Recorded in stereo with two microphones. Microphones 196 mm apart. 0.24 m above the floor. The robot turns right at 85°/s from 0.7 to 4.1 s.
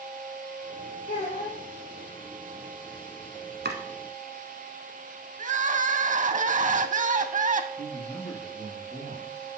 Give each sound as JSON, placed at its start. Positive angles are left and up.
{"t": 1.1, "sound": "a child speaking", "azimuth_deg": 130, "distance_m": 4.0}
{"t": 3.6, "sound": "chopping", "side_deg": -65, "distance_m": 1.2}
{"t": 5.4, "sound": "crying", "side_deg": -45, "distance_m": 0.5}
{"t": 7.8, "sound": "a man speaking", "side_deg": 15, "distance_m": 5.0}